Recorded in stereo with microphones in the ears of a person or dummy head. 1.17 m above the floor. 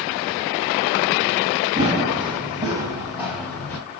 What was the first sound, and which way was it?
Running footsteps, 40° right (ahead or behind).